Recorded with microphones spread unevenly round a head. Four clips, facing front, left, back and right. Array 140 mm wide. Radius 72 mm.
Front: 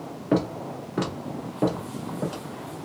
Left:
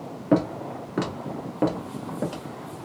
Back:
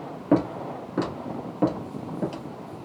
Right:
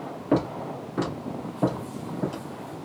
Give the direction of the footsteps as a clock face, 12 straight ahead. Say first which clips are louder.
Left 2 dB, back 2 dB; 7 o'clock.